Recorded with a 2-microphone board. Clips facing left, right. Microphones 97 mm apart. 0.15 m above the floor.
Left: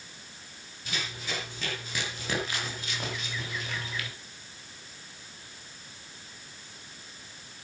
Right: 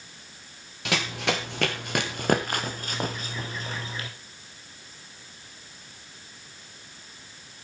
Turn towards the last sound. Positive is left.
turn(degrees=-30)  # may be behind; listen again after turning